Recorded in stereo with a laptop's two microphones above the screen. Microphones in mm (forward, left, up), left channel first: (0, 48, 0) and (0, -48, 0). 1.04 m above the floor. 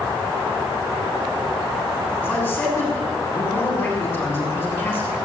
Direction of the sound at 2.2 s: 15° left (ahead or behind).